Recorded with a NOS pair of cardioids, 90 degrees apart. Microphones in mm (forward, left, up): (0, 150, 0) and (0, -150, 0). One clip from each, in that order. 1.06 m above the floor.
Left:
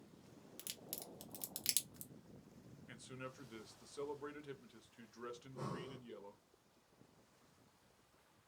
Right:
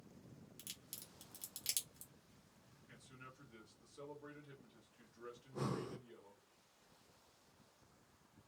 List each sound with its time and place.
0.6 s a crack: 25° left, 0.9 m
2.9 s a man speaking: 55° left, 0.9 m
5.4 s breathing: 45° right, 0.7 m